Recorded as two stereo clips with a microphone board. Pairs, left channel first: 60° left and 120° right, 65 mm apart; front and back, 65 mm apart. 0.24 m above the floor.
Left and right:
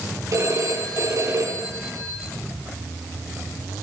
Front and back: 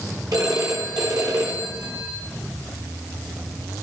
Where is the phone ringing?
155° right, 5 m.